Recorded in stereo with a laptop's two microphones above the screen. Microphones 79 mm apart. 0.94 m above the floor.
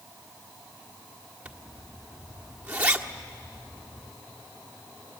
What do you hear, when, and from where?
1.4 s a zipper: 20° right (ahead or behind), 1.3 m